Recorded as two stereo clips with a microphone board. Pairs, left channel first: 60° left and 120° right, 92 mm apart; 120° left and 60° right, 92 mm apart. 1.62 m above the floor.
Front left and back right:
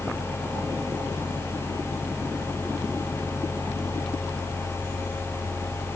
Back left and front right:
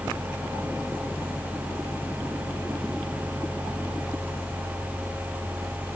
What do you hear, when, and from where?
Only background noise.